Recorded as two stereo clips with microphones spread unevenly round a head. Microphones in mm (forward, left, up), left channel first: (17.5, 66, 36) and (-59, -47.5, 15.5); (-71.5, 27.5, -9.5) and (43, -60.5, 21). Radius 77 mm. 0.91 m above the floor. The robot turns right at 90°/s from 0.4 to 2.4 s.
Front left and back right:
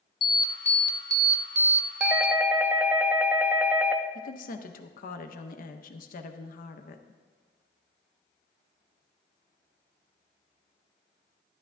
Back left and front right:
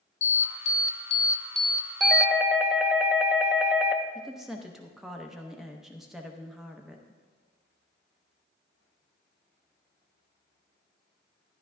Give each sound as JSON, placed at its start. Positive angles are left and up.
{"t": 0.2, "sound": "an alarm", "azimuth_deg": 115, "distance_m": 0.6}
{"t": 2.0, "sound": "a doorbell", "azimuth_deg": 180, "distance_m": 0.8}
{"t": 4.2, "sound": "a woman speaking", "azimuth_deg": 60, "distance_m": 0.7}